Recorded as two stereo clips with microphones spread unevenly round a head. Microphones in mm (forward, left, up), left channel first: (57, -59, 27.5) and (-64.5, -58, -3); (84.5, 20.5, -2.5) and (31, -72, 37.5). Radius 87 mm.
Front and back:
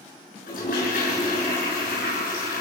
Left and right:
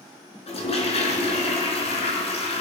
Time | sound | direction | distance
0.5 | a toilet flushing | 30° left | 6 m